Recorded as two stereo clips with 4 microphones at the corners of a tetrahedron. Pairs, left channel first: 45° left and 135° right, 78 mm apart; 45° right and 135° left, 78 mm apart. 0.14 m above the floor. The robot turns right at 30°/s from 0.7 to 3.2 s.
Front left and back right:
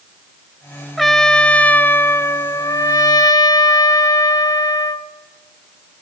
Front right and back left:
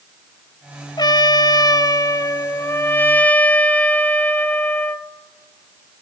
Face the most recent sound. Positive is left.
turn(degrees=25)